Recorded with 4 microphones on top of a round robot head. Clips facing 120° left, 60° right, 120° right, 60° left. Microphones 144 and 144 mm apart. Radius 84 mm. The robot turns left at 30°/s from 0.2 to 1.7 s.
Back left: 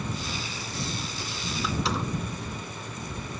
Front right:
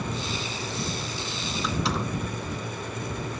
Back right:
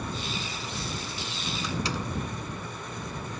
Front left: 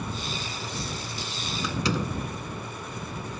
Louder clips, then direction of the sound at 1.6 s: Front right 1 dB, front left 5 dB; 35° left.